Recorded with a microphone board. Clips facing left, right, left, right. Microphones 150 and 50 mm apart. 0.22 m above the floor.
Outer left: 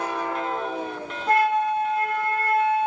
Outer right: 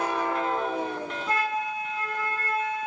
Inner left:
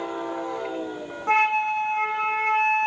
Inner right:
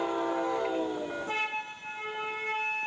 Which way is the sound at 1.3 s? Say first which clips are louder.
Outer left 9 dB, inner left 12 dB; 65° left (ahead or behind).